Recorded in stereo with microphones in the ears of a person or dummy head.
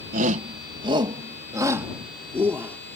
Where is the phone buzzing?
I don't hear a phone buzzing.